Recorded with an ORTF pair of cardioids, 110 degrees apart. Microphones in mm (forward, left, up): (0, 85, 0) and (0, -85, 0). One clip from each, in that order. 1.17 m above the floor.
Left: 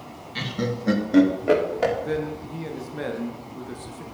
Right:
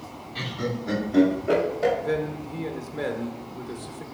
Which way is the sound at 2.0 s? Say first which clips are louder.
Right 1 dB; 5° left.